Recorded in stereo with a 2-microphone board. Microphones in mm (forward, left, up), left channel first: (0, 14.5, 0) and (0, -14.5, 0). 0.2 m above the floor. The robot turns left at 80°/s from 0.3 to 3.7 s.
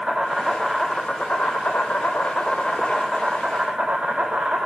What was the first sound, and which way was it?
An insect, 150° right.